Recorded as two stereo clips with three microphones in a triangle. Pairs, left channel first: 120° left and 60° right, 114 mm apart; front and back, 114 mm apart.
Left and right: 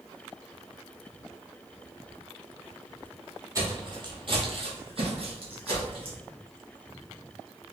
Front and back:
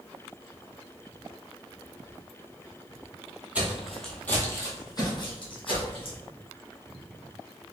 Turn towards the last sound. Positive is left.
turn(degrees=-25)